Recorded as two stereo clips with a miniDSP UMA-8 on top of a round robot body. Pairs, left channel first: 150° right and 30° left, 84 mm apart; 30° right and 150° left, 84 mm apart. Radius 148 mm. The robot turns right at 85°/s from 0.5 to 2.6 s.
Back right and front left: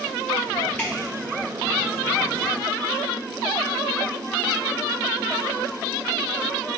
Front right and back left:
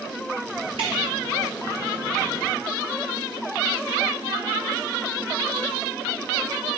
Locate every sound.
0.8 s dripping: 135° left, 0.6 m; by 0.9 s 145° left, 0.6 m